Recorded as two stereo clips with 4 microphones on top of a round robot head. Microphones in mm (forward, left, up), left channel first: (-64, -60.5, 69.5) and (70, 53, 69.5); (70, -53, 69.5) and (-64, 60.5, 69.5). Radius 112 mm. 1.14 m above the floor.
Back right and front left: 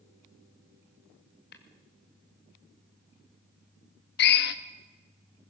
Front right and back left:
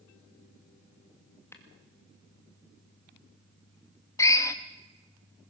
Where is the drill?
115° right, 0.7 m.